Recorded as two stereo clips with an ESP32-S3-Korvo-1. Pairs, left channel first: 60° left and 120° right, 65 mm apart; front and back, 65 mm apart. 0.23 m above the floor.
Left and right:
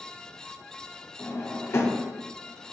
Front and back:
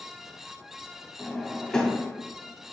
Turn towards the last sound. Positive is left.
turn(degrees=75)